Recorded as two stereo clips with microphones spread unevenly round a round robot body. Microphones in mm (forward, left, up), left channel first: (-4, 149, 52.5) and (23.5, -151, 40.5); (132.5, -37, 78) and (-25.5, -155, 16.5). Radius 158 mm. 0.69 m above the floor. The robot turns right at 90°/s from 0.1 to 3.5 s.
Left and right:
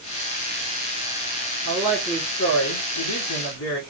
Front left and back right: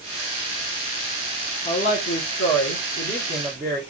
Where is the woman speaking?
40° right, 2 m; by 3.8 s 130° left, 2 m.